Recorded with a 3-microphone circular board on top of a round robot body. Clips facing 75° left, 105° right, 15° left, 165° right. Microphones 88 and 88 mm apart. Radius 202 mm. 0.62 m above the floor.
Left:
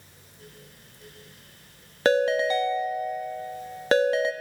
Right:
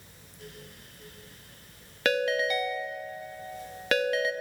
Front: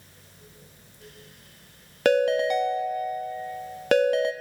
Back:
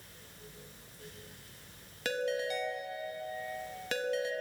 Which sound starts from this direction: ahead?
A ringtone, at 2.0 s.